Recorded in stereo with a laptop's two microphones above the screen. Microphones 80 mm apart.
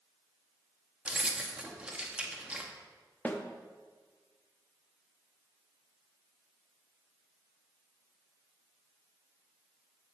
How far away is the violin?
I don't hear a violin.